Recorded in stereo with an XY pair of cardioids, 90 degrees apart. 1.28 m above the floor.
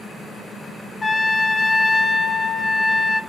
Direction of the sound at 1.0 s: 20° left.